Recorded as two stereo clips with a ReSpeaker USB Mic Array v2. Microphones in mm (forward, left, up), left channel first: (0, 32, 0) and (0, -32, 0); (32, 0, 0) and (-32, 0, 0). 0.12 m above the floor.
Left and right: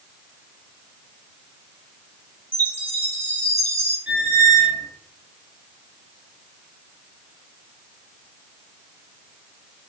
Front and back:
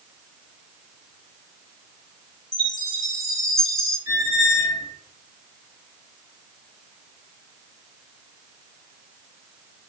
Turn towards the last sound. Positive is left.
turn(degrees=-130)